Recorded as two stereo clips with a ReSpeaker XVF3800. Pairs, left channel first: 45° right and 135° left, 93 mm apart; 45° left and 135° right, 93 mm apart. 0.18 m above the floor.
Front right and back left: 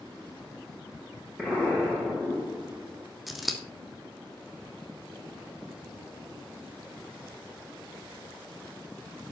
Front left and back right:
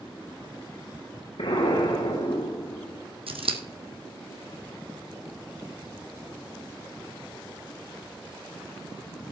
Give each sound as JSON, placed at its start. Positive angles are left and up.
{"t": 1.4, "sound": "an explosion", "azimuth_deg": 55, "distance_m": 7.0}
{"t": 3.3, "sound": "scissors", "azimuth_deg": -135, "distance_m": 1.7}